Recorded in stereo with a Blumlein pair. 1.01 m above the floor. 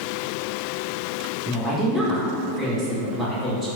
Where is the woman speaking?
10° right, 0.6 m.